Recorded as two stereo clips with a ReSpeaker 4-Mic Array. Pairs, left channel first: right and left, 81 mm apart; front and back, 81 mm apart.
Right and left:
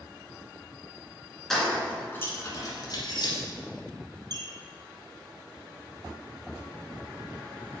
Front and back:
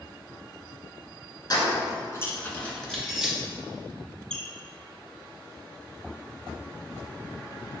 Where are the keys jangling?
5° right, 1.6 m; by 3.3 s 95° right, 1.9 m.